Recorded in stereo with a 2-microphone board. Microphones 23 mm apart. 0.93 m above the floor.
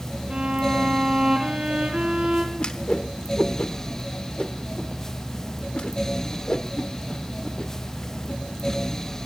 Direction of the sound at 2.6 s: 40° left (ahead or behind).